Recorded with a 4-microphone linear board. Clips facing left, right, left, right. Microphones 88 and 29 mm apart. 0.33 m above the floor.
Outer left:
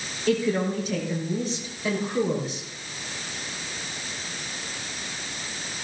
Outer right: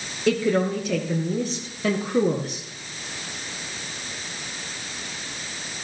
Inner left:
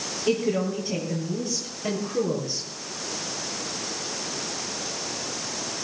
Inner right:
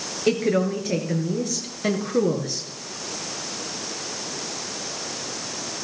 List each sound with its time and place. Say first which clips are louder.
0.3 s a woman speaking: outer right 3 dB, inner right 3 dB; 75° right (ahead or behind), 5.5 m; by 2.7 s 70° right (ahead or behind), 5.5 m